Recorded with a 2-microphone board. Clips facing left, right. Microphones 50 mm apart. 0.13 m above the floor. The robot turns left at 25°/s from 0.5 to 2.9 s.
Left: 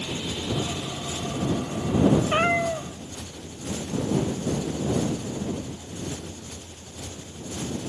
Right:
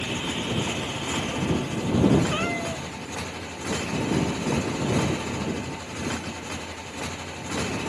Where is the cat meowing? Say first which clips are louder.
Left 5 dB; 25° left (ahead or behind); by 2.9 s 40° left (ahead or behind).